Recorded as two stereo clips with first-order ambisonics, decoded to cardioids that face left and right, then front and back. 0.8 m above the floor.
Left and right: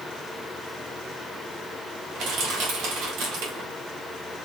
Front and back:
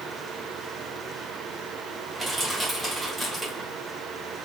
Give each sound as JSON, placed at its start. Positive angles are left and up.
{"t": 2.1, "sound": "crushing", "azimuth_deg": -100, "distance_m": 1.5}